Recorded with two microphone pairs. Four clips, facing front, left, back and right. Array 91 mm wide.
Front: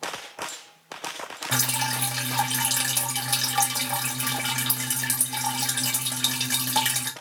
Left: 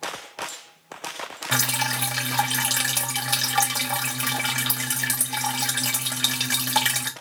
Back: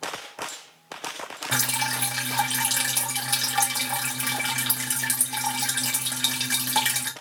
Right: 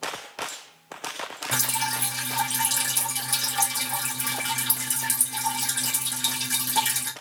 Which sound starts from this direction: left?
Dripping, at 1.5 s.